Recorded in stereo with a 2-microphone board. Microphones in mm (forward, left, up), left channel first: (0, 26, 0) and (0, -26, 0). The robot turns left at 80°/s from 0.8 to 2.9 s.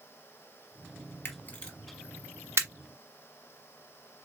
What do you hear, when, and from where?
1.2 s a camera shutter: 50° left (ahead or behind), 1.2 m; by 2.7 s 65° right (ahead or behind), 1.2 m